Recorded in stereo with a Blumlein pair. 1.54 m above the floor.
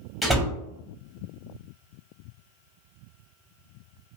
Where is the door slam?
5° right, 1.0 m.